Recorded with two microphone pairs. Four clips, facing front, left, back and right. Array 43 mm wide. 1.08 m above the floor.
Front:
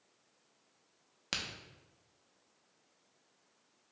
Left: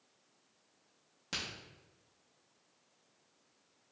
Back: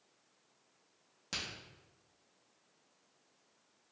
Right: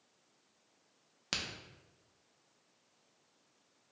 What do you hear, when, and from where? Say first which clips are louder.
1.3 s a crack: right 1 dB, front 3 dB; 40° right, 0.7 m